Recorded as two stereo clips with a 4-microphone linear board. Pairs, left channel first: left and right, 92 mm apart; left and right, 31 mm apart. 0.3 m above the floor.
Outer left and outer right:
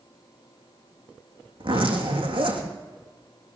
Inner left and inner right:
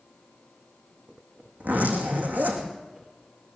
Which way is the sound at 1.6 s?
70° right (ahead or behind).